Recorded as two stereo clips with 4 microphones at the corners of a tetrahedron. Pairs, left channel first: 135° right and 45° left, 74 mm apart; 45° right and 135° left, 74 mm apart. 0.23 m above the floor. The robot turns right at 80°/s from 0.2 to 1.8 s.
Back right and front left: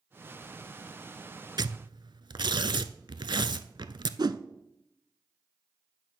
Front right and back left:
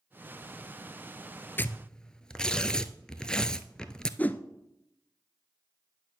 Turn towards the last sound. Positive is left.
turn(degrees=20)